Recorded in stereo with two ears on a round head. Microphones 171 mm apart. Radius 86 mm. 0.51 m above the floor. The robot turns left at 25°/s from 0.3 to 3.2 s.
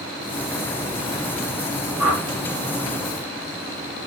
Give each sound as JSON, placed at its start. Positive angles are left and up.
{"t": 2.0, "sound": "a whoosh", "side_deg": 0, "distance_m": 1.6}